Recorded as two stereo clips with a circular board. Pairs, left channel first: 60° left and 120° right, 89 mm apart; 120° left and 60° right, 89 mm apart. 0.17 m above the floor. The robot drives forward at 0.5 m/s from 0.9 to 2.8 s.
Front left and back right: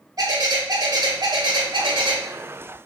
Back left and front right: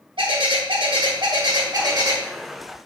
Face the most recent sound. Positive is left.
turn(degrees=-130)